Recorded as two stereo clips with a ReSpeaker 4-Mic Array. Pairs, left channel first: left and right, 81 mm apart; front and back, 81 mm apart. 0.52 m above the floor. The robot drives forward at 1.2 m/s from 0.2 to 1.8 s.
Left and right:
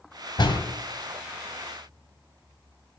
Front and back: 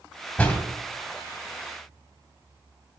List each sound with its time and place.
0.4 s a door slam: 75° left, 2 m; by 0.6 s 80° left, 2 m